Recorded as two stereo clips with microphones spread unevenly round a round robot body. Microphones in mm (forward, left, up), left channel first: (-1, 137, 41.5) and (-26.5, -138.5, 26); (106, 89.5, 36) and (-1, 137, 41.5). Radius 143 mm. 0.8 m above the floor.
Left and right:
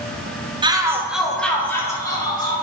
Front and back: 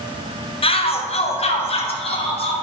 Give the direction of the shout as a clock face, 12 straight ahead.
1 o'clock.